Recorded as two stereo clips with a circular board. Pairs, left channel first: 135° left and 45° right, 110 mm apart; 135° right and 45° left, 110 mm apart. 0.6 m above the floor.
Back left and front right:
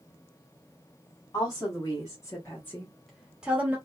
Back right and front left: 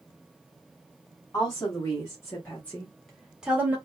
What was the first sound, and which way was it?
A woman speaking, 175° left.